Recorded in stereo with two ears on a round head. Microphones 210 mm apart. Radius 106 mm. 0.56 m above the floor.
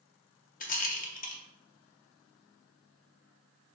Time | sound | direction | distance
0.6 | a rattle | 35° left (ahead or behind) | 0.6 m